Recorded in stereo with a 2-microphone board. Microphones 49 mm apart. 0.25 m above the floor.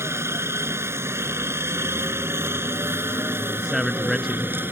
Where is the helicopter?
65° right (ahead or behind); by 4.7 s 50° right (ahead or behind).